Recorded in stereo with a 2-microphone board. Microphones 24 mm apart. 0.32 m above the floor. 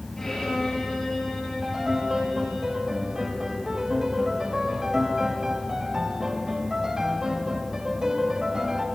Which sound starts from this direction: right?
A piano, at 1.6 s.